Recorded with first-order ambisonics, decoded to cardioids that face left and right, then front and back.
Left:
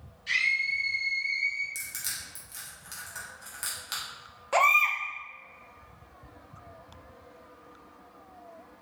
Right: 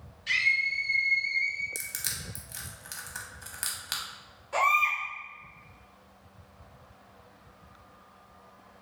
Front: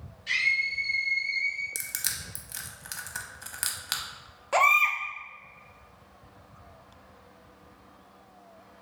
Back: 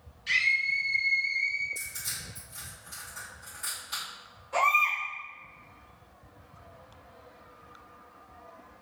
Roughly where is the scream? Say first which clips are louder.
Right 1 dB, even; behind right.